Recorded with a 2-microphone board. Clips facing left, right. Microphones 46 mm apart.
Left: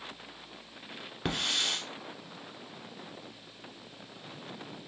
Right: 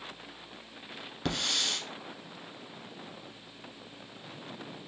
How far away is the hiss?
About 1.3 m.